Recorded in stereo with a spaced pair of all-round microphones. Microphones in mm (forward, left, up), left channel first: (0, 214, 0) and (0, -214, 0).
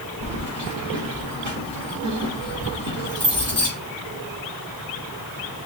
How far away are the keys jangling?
About 3.5 m.